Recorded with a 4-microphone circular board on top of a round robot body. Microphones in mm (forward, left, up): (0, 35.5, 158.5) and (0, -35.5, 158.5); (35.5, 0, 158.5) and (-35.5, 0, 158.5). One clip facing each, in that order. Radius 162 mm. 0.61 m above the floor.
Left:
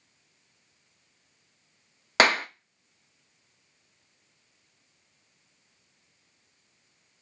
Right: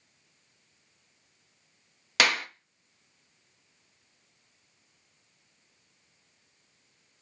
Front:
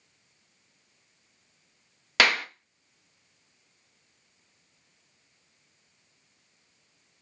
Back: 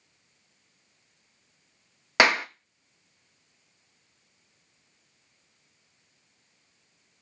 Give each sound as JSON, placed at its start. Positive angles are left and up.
{"t": 2.2, "sound": "a clap", "azimuth_deg": 120, "distance_m": 0.7}